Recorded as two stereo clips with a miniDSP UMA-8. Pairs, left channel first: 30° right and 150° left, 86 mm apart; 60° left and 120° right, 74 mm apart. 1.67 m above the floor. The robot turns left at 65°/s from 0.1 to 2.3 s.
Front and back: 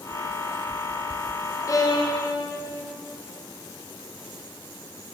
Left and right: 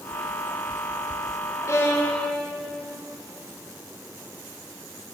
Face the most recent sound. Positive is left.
turn(degrees=-25)